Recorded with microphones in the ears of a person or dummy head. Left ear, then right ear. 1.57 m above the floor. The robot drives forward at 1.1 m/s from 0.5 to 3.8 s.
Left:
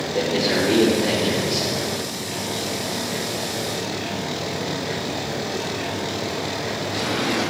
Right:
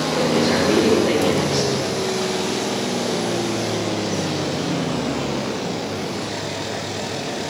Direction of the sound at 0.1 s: 45° left (ahead or behind).